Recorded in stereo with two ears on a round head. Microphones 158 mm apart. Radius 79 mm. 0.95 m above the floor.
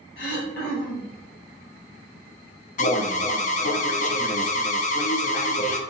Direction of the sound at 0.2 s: 65° left (ahead or behind).